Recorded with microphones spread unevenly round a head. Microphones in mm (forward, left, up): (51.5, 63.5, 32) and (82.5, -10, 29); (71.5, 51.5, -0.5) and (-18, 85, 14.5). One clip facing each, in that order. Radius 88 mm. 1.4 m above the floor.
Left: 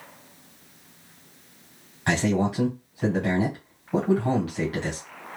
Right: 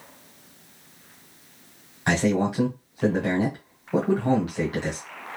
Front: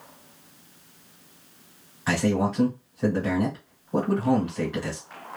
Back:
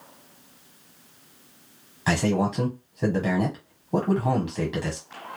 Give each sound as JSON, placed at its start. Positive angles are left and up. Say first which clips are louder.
{"t": 2.1, "sound": "a man speaking", "louder": "right 1 dB, even", "azimuth_deg": -145, "distance_m": 0.8}